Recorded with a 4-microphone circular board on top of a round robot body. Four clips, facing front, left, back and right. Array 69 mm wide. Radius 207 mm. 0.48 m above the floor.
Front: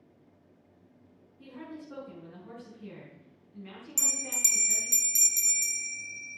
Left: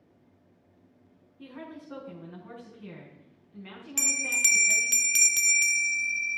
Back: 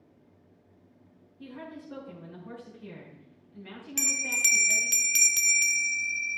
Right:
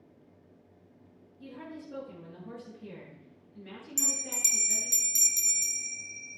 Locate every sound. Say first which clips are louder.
1.4 s a woman speaking: left 1 dB, back 1 dB; 90° left, 6 m
4.0 s a bell: left 9 dB, back 9 dB; 125° left, 0.8 m